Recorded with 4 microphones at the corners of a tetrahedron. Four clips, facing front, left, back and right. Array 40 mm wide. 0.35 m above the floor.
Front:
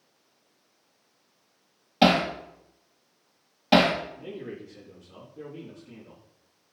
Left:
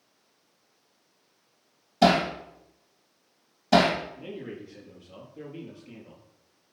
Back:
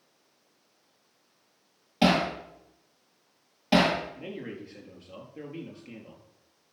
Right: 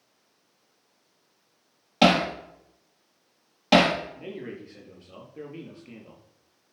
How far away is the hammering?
About 4 m.